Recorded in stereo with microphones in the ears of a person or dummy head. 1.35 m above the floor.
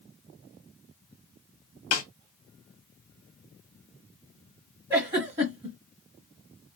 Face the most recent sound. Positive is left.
turn(degrees=-25)  # may be behind; listen again after turning